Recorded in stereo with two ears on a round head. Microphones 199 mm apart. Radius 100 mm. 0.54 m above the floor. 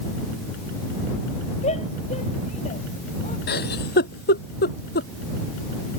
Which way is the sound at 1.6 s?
30° left (ahead or behind).